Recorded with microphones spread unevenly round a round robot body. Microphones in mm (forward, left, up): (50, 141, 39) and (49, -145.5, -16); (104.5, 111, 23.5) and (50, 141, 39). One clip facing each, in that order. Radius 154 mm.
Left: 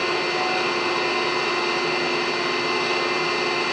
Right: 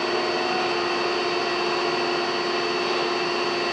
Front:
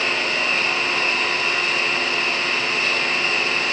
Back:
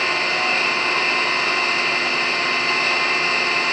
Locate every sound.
0.0 s an engine running: 105° left, 1.9 m